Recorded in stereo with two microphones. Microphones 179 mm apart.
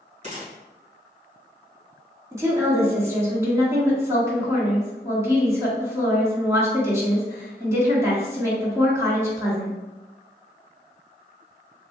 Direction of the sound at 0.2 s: 40° right (ahead or behind).